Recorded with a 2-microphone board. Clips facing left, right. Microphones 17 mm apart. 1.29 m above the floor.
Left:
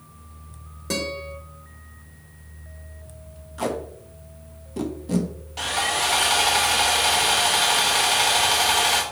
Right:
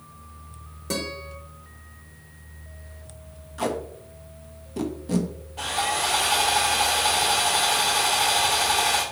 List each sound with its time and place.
0.9 s a guitar: 10° left (ahead or behind), 1.3 m
3.6 s tape being pulled: 5° right (ahead or behind), 0.7 m
5.6 s sawing: 65° left (ahead or behind), 1.1 m